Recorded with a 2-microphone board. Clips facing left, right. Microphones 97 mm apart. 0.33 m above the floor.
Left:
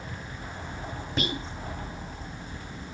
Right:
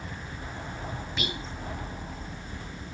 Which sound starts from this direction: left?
Whispering, at 1.2 s.